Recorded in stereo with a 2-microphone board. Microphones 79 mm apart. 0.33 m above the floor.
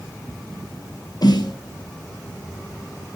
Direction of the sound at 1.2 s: 55° left (ahead or behind).